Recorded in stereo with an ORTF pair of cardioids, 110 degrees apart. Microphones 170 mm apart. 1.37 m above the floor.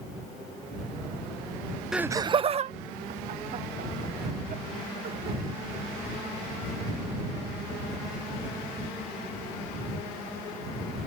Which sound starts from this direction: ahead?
Laughter, at 1.9 s.